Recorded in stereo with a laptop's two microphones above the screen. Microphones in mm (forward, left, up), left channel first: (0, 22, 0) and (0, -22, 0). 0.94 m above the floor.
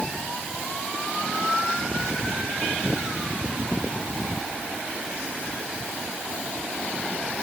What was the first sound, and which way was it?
Only background noise.